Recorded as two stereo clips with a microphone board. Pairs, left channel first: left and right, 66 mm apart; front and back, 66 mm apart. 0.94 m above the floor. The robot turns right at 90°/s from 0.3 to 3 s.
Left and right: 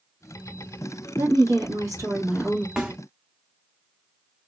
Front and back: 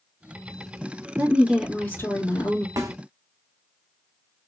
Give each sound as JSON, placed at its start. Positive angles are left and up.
{"t": 1.2, "sound": "a woman speaking", "azimuth_deg": -130, "distance_m": 1.5}
{"t": 2.8, "sound": "a snare drum", "azimuth_deg": -175, "distance_m": 0.9}